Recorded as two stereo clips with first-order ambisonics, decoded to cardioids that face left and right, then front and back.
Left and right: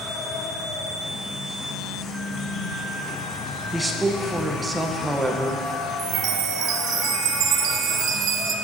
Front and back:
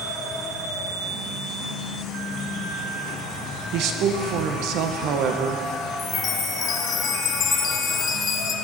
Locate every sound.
0.0 s an insect: 40° left, 1.5 m
3.7 s a woman speaking: 170° right, 1.1 m
6.0 s a chime: 55° right, 0.8 m